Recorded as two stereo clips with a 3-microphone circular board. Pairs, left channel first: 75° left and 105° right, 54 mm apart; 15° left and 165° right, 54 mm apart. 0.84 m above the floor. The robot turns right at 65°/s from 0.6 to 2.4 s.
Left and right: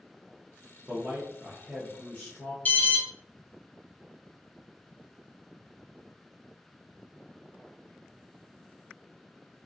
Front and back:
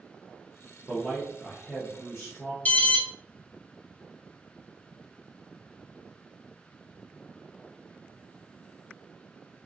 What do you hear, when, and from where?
0.9 s a man speaking: 75° right, 0.6 m; by 2.5 s 25° left, 0.6 m
2.6 s an alarm: 55° left, 0.6 m